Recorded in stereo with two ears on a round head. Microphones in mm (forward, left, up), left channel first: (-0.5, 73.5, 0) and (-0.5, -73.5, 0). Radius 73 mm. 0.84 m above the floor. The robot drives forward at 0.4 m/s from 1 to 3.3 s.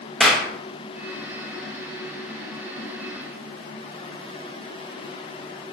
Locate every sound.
0.2 s a clap: centre (ahead or behind), 0.6 m